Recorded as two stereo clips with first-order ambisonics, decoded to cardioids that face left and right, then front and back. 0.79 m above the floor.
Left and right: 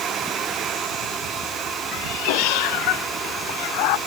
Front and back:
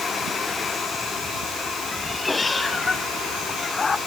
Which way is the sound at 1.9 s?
85° left.